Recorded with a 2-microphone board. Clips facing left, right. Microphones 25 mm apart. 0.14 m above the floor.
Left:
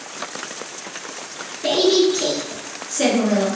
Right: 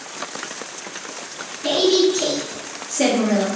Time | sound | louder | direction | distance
1.6 | a woman speaking | even | 35° left (ahead or behind) | 1.9 m